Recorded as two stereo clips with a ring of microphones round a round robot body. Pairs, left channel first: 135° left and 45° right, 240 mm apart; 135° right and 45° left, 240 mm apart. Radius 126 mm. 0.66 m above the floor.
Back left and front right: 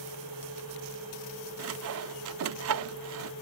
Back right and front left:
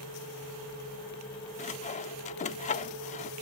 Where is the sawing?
75° right.